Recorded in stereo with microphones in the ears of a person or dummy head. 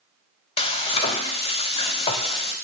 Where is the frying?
30° left (ahead or behind), 0.6 m.